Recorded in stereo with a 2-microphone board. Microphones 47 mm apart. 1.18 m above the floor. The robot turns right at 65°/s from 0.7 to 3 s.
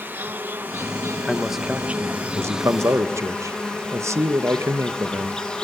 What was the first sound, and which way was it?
An insect, 135° right.